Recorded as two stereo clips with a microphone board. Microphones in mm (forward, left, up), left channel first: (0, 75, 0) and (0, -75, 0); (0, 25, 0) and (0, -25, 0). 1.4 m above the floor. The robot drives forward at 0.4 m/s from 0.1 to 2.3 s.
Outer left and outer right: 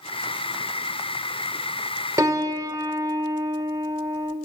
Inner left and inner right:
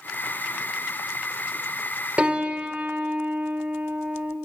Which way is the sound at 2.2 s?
25° right (ahead or behind).